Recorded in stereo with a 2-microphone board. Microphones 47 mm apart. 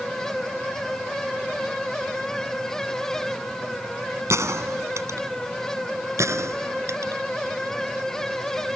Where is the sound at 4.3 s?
85° right.